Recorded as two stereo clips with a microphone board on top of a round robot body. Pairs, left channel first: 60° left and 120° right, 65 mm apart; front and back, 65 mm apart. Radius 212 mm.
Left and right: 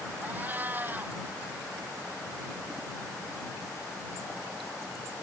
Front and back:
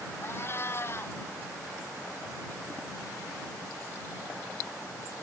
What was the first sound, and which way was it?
A cat meowing, 55° right.